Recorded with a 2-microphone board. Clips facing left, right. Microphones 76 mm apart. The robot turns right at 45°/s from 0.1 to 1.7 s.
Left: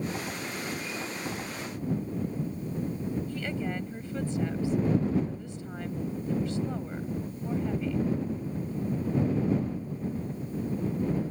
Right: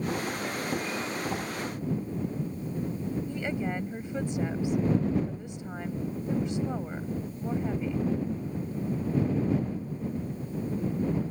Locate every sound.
3.3 s a woman speaking: 20° right (ahead or behind)